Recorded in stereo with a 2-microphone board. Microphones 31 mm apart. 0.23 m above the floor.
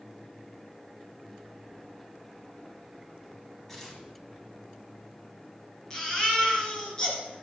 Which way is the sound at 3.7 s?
10° left (ahead or behind).